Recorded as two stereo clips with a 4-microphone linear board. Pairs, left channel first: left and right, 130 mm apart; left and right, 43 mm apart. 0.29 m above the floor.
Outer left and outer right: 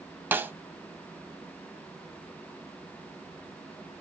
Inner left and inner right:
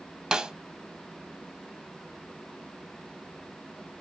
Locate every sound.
0.3 s a snare drum: 15° right (ahead or behind), 0.5 m